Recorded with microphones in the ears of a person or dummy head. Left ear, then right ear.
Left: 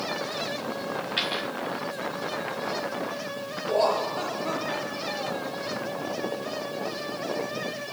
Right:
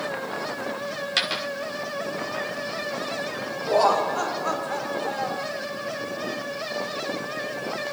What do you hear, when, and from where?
1.2 s a dropped coin: 55° right (ahead or behind), 1.8 m
3.7 s laughter: 45° right (ahead or behind), 1.7 m